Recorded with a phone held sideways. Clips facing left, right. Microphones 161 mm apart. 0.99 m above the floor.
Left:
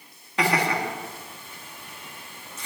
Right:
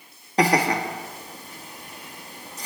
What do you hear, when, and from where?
0.4 s laughter: 40° right (ahead or behind), 1.7 m